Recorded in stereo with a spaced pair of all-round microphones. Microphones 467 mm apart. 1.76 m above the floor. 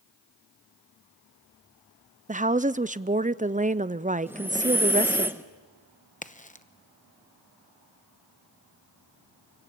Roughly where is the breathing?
Centre.